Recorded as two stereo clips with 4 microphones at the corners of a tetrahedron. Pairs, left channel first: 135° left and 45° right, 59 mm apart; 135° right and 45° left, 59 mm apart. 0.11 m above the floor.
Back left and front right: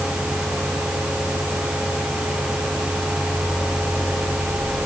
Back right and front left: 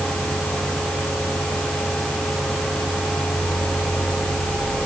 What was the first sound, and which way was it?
Only background noise.